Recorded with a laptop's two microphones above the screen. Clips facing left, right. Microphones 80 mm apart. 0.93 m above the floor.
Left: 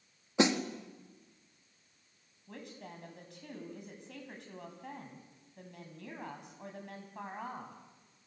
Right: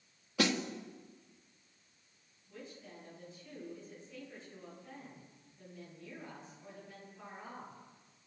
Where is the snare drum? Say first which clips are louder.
Left 4 dB; 25° left (ahead or behind), 1.9 m.